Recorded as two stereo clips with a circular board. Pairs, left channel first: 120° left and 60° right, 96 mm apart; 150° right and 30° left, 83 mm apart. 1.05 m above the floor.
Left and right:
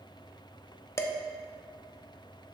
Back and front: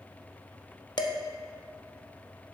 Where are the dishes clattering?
Straight behind, 0.7 m.